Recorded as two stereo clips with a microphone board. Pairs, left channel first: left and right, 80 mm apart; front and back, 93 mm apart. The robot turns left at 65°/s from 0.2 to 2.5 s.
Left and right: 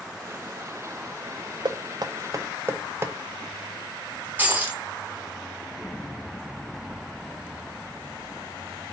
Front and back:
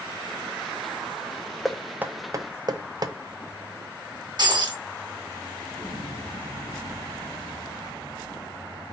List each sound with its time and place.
1.6 s knocking: 90° right, 0.5 m; by 3.1 s 145° right, 0.5 m
4.4 s breaking glass: 155° right, 1.8 m
5.7 s an explosion: 10° right, 1.8 m